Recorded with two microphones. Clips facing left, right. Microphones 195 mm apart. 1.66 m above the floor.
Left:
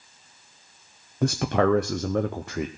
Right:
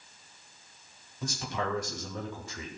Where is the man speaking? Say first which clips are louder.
Left 13 dB; 65° left (ahead or behind), 0.6 m.